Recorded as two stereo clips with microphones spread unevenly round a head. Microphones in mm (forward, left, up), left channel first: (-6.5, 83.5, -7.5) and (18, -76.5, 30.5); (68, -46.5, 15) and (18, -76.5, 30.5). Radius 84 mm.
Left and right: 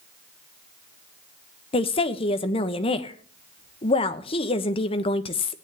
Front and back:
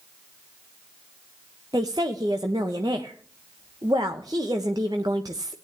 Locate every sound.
1.7 s a woman speaking: 160° left, 1.1 m